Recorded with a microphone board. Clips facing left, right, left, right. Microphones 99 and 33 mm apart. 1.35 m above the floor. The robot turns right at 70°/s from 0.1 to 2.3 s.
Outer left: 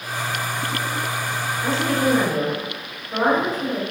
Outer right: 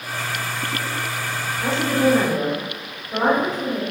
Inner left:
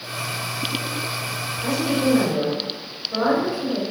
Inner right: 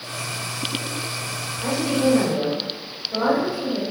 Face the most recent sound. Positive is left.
turn(degrees=-5)